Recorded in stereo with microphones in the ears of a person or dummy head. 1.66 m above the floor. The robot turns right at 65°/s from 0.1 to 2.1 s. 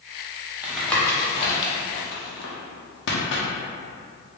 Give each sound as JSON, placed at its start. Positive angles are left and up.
{"t": 0.6, "sound": "tapping", "side_deg": -10, "distance_m": 0.8}